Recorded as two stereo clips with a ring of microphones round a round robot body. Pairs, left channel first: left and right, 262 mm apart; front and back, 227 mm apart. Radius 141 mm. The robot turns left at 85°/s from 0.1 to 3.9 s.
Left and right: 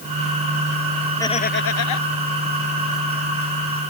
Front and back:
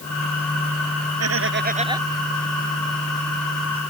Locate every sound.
1.2 s laughter: 170° left; by 2.1 s 95° left